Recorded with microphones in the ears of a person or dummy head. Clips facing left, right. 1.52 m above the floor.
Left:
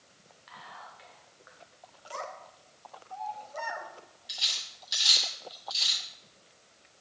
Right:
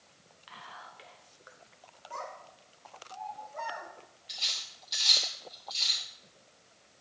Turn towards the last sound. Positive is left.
turn(degrees=15)  # may be behind; listen again after turning